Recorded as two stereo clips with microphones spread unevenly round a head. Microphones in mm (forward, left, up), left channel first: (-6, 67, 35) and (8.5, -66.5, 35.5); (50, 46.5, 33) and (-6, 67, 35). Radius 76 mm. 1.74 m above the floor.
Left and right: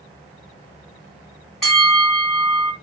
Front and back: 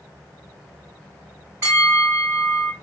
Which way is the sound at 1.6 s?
175° right.